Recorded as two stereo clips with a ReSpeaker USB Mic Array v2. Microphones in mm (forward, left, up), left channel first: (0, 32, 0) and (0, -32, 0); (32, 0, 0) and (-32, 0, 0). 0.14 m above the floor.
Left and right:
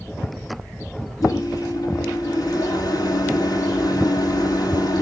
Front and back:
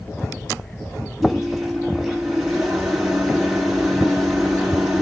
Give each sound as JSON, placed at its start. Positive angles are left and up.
{"t": 1.2, "sound": "a microwave", "azimuth_deg": 95, "distance_m": 4.0}